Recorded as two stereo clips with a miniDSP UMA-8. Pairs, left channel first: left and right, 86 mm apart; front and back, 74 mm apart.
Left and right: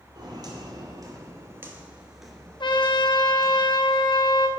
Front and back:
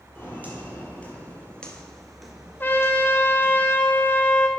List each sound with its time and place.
0.1 s footsteps: 60° right, 1.7 m; by 3.6 s 120° left, 1.3 m
2.6 s a trumpet: 65° left, 0.8 m